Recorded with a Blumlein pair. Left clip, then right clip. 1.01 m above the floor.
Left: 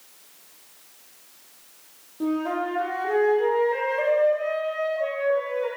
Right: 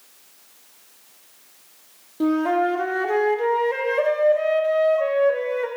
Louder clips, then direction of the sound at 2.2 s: Right 6 dB; 25° right.